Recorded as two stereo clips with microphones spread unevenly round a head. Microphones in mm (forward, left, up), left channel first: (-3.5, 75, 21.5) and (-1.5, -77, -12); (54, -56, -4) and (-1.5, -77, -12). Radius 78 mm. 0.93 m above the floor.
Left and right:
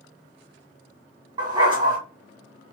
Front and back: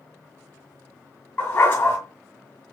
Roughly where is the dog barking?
Ahead.